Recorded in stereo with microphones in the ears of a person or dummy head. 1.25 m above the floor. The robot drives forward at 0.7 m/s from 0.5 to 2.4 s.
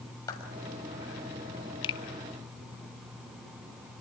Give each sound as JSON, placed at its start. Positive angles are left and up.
{"t": 0.3, "sound": "a clap", "side_deg": 20, "distance_m": 6.0}
{"t": 1.8, "sound": "a finger snap", "side_deg": 30, "distance_m": 1.2}